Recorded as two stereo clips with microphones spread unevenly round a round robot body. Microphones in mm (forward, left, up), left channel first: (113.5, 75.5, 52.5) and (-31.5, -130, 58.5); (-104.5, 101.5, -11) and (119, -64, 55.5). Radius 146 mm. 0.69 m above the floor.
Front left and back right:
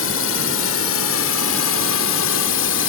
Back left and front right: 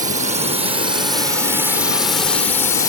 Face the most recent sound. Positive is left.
turn(degrees=80)